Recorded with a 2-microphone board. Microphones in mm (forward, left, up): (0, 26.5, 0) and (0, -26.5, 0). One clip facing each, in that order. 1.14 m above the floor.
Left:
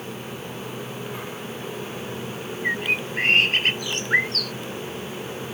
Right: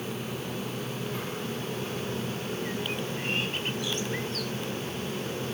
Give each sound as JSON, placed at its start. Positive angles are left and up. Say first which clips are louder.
{"t": 2.6, "sound": "a bird", "louder": "left 7 dB", "side_deg": 70}